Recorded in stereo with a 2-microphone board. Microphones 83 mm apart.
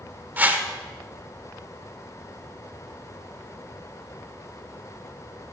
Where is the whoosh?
20° right (ahead or behind), 1.3 m.